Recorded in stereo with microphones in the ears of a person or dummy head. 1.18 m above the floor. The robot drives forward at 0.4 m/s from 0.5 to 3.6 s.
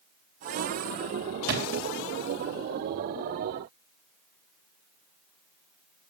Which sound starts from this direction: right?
A thud, at 1.5 s.